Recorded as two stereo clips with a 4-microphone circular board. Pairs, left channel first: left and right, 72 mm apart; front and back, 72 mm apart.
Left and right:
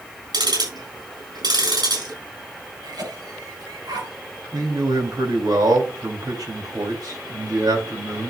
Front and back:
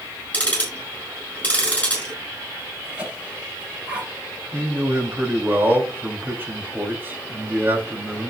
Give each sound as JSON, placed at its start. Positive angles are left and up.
{"t": 0.3, "sound": "ticking", "azimuth_deg": -75, "distance_m": 8.0}
{"t": 2.8, "sound": "a cough", "azimuth_deg": -105, "distance_m": 6.5}
{"t": 4.5, "sound": "a man speaking", "azimuth_deg": -115, "distance_m": 4.0}